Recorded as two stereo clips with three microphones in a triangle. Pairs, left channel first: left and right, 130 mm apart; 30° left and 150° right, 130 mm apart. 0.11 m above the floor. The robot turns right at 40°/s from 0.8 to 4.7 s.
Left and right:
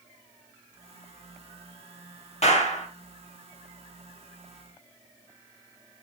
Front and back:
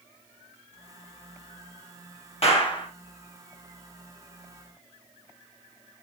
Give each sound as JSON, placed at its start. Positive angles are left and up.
{"t": 2.4, "sound": "a clap", "azimuth_deg": 65, "distance_m": 2.0}